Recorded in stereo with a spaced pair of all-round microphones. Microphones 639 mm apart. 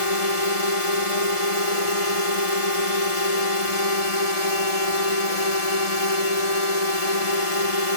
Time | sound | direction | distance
0.0 | a drone | 65° left (ahead or behind) | ?